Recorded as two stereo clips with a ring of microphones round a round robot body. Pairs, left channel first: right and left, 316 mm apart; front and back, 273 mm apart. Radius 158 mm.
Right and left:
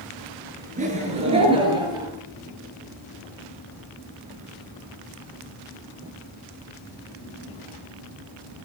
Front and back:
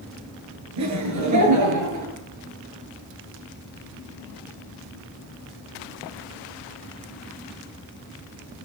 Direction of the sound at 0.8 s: 160° left.